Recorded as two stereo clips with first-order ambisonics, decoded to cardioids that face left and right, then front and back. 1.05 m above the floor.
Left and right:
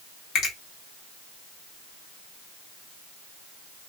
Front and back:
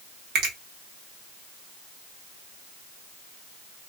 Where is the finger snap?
145° left, 1.1 m.